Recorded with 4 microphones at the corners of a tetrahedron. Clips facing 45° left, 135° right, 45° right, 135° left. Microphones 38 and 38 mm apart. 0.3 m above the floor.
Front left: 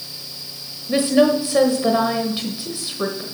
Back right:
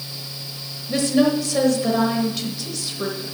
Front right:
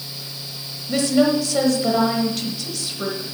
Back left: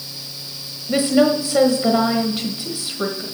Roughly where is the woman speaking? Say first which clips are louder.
Front left 3 dB, back left 2 dB; left.